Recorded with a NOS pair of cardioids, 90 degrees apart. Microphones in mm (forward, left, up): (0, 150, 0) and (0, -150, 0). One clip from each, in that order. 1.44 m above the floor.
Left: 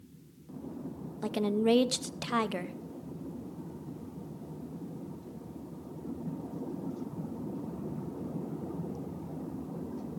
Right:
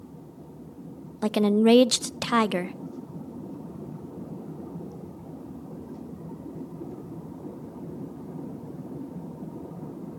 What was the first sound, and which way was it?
A woman speaking, 35° right.